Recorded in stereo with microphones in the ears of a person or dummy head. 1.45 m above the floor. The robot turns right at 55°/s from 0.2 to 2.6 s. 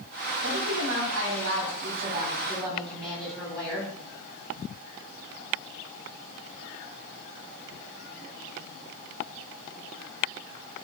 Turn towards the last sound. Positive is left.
turn(degrees=5)